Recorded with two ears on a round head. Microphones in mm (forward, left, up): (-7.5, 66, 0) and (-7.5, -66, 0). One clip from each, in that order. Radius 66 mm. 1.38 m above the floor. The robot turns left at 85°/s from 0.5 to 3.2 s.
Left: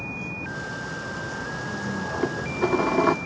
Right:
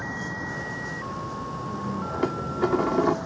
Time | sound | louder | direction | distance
0.0 | a vehicle | right 1 dB | 140° right | ?
2.2 | dishes clattering | even | 150° right | ?